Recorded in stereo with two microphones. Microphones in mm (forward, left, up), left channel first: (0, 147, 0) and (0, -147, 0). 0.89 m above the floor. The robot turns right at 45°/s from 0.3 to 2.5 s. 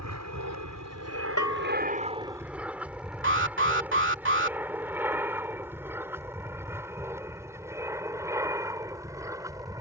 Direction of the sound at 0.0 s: 65° right (ahead or behind).